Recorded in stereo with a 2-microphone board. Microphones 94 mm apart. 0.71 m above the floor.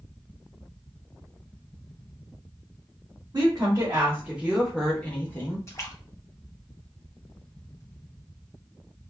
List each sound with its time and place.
3.3 s a woman speaking: 40° right (ahead or behind), 1.3 m; by 5.6 s 30° left (ahead or behind), 1.1 m
5.7 s a splash: 30° left (ahead or behind), 0.7 m